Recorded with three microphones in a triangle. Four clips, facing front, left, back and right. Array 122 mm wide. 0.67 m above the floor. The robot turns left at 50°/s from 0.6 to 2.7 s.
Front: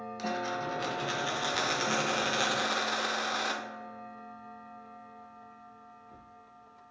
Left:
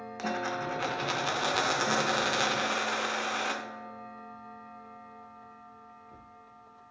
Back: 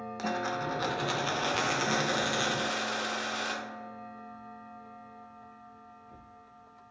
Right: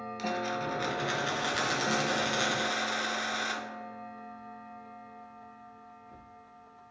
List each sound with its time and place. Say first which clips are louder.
0.2 s a dropped coin: left 1 dB, back 1 dB; 150° left, 0.5 m; by 3.6 s 45° left, 0.5 m